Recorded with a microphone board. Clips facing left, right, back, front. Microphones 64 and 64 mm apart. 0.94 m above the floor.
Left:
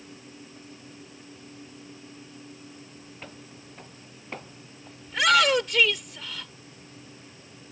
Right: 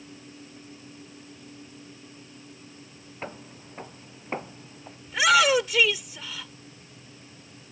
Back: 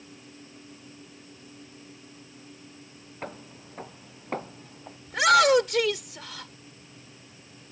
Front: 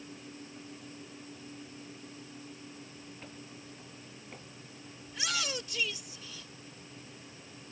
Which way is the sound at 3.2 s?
145° right.